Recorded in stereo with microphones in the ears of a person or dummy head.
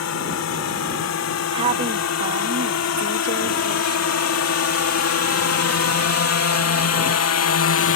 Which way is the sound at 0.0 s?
75° left (ahead or behind).